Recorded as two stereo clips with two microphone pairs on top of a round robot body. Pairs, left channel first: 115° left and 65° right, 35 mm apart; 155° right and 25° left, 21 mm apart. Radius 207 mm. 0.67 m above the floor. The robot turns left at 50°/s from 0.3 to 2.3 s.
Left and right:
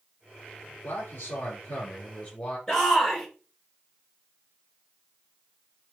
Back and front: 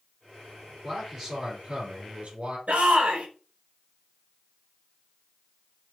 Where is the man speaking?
125° left, 3.5 m; by 2.6 s 50° left, 3.5 m.